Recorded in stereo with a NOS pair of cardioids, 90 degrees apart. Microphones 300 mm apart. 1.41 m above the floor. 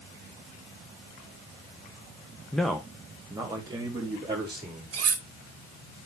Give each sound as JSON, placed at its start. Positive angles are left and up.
{"t": 2.5, "sound": "a man speaking", "azimuth_deg": 5, "distance_m": 1.2}
{"t": 4.9, "sound": "cutlery clinking", "azimuth_deg": -55, "distance_m": 2.5}